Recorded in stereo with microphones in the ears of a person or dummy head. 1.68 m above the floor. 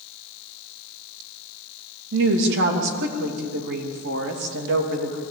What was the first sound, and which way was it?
A woman speaking, 65° right (ahead or behind).